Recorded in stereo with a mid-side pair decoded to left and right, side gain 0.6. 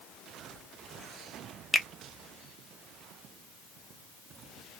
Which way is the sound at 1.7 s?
5° left.